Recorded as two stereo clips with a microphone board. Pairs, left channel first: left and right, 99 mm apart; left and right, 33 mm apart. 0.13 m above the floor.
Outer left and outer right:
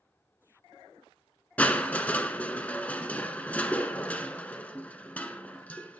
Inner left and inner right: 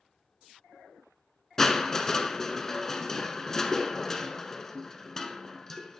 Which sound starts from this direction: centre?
Crushing, at 1.6 s.